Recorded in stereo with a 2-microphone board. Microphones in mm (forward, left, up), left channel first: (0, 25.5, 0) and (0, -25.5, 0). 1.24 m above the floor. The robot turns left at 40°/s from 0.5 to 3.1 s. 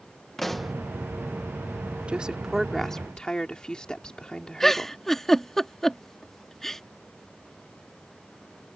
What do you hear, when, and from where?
0.4 s a pop: 5° left (ahead or behind); by 0.7 s 5° right (ahead or behind)
2.1 s a woman speaking: 160° right; by 5.0 s 160° left
4.6 s a giggle: 10° left (ahead or behind)